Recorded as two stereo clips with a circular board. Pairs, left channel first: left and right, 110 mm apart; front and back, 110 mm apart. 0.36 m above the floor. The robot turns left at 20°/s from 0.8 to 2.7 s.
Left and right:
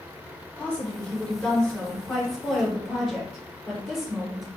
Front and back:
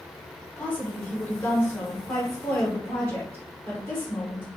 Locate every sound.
0.6 s a woman speaking: 40° left, 0.8 m; by 4.5 s straight ahead, 0.8 m